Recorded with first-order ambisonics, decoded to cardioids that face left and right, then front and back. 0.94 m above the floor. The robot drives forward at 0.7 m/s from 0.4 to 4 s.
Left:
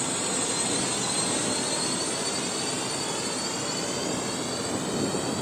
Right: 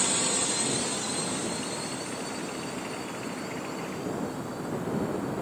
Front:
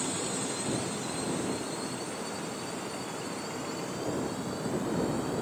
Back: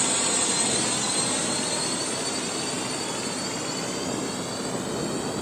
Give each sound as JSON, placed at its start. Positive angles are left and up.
{"t": 0.0, "sound": "a drone", "azimuth_deg": -155}